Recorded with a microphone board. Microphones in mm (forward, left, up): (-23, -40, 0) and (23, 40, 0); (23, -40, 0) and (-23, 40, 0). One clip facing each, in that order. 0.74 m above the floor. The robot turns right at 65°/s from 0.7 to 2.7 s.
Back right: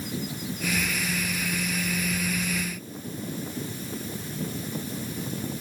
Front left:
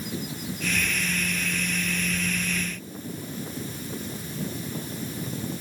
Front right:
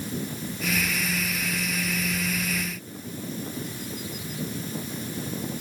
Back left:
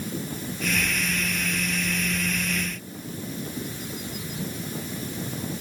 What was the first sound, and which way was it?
Only background noise.